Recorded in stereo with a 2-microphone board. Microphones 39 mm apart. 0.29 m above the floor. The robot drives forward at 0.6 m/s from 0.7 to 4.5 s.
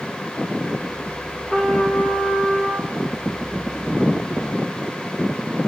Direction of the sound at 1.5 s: 15° left (ahead or behind).